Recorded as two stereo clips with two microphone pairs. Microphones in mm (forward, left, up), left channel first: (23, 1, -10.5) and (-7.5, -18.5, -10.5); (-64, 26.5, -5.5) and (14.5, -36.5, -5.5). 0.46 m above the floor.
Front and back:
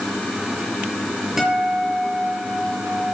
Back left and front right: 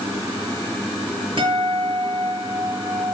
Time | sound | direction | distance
1.4 | a guitar | 70° right | 7 m